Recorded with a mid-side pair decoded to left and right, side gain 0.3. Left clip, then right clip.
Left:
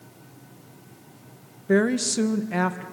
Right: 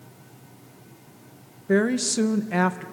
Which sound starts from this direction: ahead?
A woman speaking, at 1.7 s.